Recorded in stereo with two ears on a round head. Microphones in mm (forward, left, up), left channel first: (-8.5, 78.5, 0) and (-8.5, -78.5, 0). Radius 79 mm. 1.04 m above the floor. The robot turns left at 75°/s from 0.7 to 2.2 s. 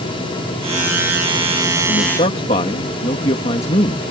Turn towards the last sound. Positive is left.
turn(degrees=35)  # may be behind; listen again after turning